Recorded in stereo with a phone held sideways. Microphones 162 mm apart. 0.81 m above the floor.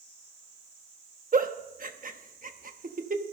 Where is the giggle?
55° right (ahead or behind), 1.0 m.